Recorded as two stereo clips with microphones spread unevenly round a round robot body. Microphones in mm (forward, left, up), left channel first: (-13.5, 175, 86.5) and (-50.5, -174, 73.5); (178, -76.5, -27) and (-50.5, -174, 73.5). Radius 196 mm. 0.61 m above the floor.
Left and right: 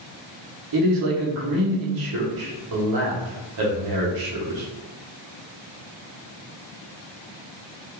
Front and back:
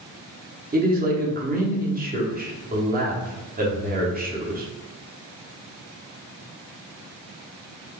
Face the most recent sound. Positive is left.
turn(degrees=-90)